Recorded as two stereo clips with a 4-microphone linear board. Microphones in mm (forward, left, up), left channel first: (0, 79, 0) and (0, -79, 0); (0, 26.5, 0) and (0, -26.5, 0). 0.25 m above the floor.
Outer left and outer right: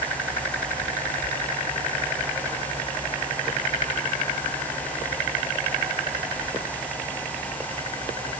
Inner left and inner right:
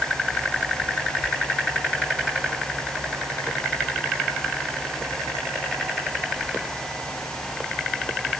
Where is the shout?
I don't hear a shout.